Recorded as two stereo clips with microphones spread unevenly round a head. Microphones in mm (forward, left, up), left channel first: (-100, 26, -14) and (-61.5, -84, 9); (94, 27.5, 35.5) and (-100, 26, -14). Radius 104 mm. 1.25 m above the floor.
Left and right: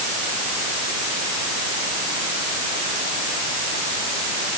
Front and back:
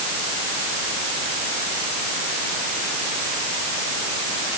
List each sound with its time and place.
Only background noise.